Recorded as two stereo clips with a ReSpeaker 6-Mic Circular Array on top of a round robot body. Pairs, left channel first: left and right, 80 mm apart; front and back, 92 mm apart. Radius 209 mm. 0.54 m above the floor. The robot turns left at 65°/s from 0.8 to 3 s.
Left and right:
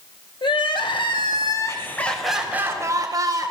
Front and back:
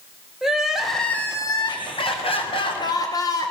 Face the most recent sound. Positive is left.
turn(degrees=-50)